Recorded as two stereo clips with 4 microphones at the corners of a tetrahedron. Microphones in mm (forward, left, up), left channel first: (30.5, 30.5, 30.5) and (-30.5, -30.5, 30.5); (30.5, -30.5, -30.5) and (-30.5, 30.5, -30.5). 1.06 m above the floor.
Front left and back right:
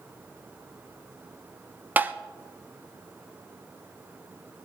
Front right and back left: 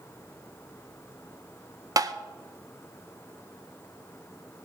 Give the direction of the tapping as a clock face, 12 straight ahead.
7 o'clock.